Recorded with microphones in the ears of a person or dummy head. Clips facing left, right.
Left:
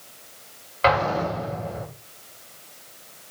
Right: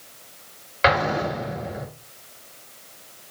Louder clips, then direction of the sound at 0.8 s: Even; 10° right (ahead or behind).